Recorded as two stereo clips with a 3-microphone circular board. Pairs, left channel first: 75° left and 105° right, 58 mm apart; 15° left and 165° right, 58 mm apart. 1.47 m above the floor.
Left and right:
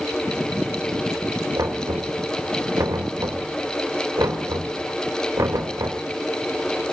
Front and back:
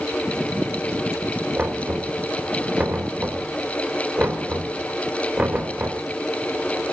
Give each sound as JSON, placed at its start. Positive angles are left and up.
{"t": 1.6, "sound": "knocking", "azimuth_deg": -105, "distance_m": 3.5}